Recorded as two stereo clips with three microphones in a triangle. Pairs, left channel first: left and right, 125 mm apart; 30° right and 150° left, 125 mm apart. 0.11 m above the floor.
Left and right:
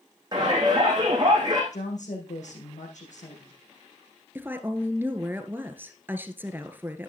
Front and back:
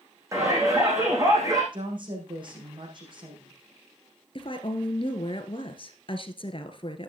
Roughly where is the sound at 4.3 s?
Ahead.